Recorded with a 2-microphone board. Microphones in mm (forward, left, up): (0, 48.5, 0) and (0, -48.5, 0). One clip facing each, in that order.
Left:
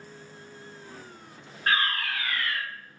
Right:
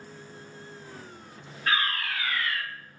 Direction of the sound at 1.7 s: 40° left (ahead or behind).